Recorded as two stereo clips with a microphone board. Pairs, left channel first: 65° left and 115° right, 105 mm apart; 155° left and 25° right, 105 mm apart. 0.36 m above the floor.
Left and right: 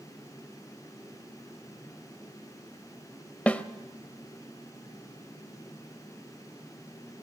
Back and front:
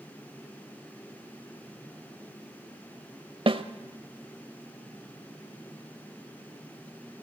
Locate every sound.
3.5 s a snare drum: 10° right, 0.8 m